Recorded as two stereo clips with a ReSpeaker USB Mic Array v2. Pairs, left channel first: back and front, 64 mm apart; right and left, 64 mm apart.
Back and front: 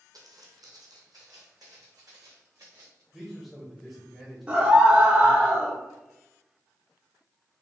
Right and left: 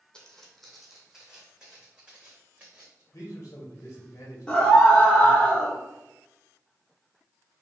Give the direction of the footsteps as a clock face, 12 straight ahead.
12 o'clock.